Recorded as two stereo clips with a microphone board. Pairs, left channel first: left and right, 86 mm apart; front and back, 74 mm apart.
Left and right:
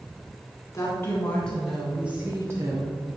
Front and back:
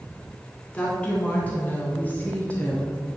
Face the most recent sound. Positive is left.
turn(degrees=-65)